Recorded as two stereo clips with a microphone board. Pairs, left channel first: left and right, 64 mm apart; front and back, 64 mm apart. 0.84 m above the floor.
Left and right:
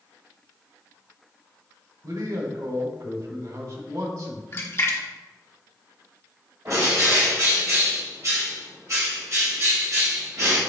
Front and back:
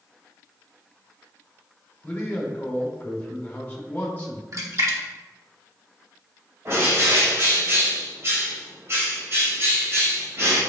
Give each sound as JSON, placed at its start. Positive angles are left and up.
{"t": 2.0, "sound": "a man speaking", "azimuth_deg": -65, "distance_m": 2.0}
{"t": 4.5, "sound": "a splash", "azimuth_deg": 145, "distance_m": 1.2}
{"t": 6.7, "sound": "a bird", "azimuth_deg": -130, "distance_m": 3.0}